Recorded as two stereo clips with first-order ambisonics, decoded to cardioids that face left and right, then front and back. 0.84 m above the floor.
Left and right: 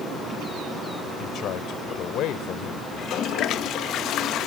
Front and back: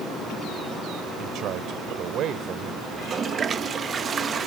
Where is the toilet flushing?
120° left.